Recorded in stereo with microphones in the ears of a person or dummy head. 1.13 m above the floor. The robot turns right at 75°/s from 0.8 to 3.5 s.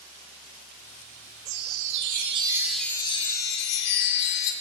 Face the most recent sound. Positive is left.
turn(degrees=55)